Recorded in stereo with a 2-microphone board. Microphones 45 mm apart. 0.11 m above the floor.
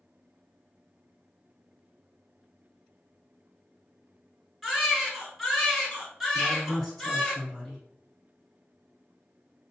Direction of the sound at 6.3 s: Centre (ahead or behind).